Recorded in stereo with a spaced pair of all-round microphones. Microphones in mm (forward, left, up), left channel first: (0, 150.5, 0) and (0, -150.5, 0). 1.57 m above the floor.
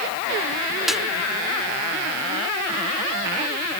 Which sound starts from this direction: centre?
A snare drum, at 0.9 s.